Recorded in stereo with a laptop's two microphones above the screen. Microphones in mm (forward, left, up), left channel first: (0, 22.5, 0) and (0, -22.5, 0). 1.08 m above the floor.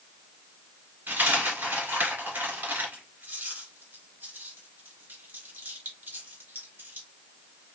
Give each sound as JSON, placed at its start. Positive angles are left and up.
{"t": 1.1, "sound": "a dropped coin", "side_deg": -50, "distance_m": 1.9}